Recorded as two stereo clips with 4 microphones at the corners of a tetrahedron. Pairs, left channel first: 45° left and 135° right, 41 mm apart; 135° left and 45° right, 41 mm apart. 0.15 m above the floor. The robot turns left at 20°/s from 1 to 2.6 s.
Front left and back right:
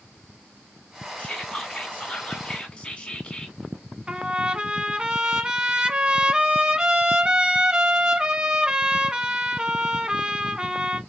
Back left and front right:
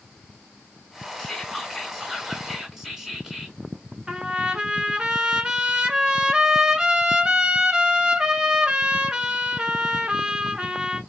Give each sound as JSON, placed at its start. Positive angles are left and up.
{"t": 1.2, "sound": "whispering", "azimuth_deg": 50, "distance_m": 1.6}
{"t": 4.1, "sound": "a trumpet", "azimuth_deg": -95, "distance_m": 0.8}